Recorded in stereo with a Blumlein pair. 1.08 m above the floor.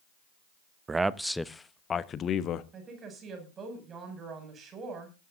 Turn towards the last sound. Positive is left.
turn(degrees=-25)